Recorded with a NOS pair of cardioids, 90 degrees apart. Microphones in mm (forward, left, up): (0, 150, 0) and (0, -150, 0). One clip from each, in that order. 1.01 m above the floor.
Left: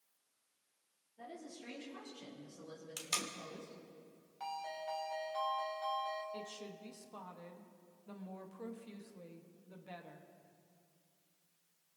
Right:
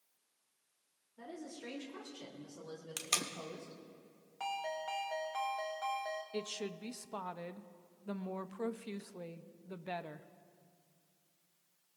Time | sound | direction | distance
1.2 | a woman speaking | 30° right | 3 m
3.0 | tape being pulled | 25° right | 1.4 m
4.4 | a ringtone | 40° right | 3.5 m
6.3 | a woman speaking | 45° right | 0.8 m